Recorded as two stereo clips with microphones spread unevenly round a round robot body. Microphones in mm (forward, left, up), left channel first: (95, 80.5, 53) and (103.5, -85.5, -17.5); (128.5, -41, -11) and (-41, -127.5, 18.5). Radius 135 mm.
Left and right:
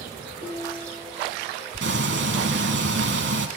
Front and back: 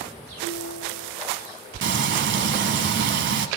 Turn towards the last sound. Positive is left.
turn(degrees=-140)